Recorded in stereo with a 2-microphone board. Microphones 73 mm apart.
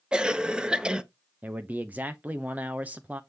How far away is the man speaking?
About 0.7 m.